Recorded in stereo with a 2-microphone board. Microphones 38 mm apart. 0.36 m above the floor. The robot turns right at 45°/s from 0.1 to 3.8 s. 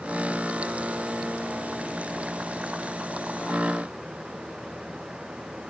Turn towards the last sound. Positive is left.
No sound to turn to.